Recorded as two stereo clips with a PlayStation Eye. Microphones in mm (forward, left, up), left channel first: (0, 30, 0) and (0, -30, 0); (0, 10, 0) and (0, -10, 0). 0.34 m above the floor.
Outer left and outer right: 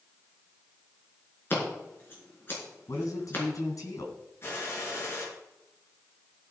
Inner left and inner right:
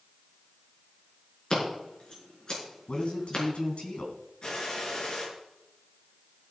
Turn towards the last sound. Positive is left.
turn(degrees=40)  # may be behind; listen again after turning